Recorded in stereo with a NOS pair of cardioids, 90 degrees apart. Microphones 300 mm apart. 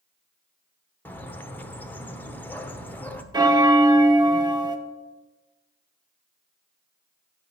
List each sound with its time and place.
1.1 s a bird: 5° left, 0.7 m
3.3 s a bell: 15° right, 0.8 m